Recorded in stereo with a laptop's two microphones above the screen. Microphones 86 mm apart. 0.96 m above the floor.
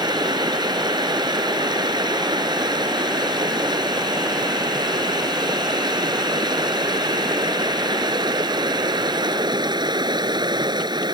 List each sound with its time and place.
0.0 s running water: 60° right (ahead or behind)